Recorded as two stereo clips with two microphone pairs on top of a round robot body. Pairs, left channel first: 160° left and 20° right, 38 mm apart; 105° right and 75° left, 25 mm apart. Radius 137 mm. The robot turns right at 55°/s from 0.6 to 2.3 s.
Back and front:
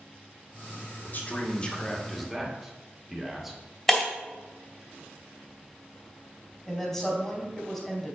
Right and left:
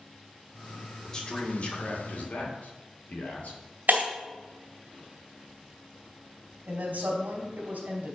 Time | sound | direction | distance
1.0 | a man speaking | 175° right | 2.5 m
3.9 | breaking glass | 75° left | 2.5 m
6.7 | a woman speaking | 75° left | 3 m